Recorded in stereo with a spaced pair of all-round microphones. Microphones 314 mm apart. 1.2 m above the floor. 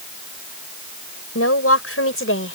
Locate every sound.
1.4 s a woman speaking: 50° left (ahead or behind); by 2.6 s 40° left (ahead or behind)